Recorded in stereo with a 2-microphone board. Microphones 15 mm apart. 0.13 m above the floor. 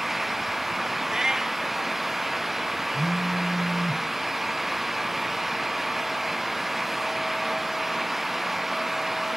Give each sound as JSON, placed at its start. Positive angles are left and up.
{"t": 1.1, "sound": "a cat meowing", "side_deg": -40, "distance_m": 1.0}
{"t": 2.9, "sound": "a phone buzzing", "side_deg": -60, "distance_m": 2.5}